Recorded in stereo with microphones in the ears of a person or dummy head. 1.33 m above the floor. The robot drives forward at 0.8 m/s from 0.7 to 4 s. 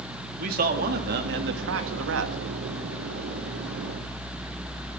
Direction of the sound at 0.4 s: 50° right (ahead or behind).